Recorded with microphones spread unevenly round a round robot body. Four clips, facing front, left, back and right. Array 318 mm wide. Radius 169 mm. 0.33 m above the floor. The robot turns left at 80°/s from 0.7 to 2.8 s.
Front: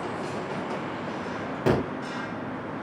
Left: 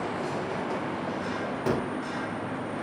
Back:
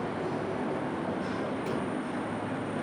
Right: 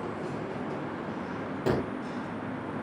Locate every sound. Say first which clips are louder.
1.7 s a gunshot: even, front 8 dB; 5° left, 1.3 m; by 1.9 s 20° right, 1.3 m